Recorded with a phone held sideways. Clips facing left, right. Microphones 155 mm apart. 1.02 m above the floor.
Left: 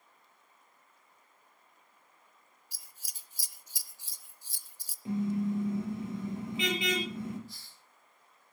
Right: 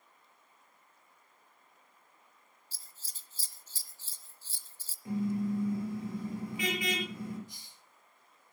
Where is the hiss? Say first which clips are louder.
Left 1 dB; 20° right (ahead or behind), 1.1 m.